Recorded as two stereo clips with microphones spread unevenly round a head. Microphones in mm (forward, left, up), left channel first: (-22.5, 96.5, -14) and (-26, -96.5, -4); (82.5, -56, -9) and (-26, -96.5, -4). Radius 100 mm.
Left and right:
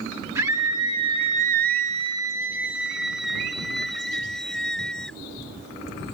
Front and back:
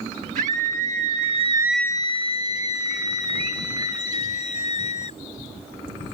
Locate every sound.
0.3 s a scream: 165° right; by 5.2 s straight ahead